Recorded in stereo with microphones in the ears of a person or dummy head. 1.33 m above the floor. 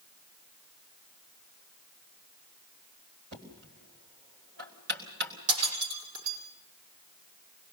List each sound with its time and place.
3.3 s knocking: 65° right (ahead or behind), 3.5 m
5.5 s breaking glass: 80° right, 7 m